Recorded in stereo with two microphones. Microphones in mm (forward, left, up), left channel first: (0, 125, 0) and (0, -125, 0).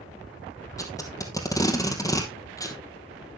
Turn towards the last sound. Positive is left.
turn(degrees=15)  # may be behind; listen again after turning